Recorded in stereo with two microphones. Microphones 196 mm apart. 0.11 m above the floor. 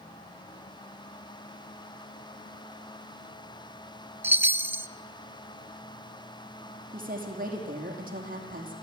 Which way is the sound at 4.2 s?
10° right (ahead or behind).